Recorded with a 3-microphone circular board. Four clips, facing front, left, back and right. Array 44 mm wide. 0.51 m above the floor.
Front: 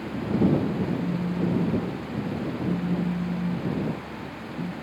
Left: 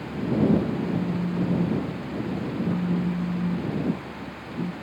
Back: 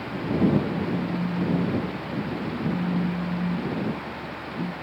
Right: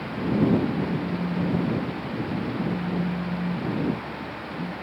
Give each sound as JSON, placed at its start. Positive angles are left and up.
{"t": 0.7, "sound": "a phone buzzing", "azimuth_deg": 120}